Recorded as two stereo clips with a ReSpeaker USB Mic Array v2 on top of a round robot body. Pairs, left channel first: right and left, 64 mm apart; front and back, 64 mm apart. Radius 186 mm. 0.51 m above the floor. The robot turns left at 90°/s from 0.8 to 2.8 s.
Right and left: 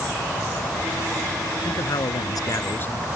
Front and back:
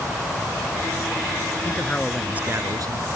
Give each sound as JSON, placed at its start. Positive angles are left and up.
{"t": 1.6, "sound": "a man speaking", "azimuth_deg": -50}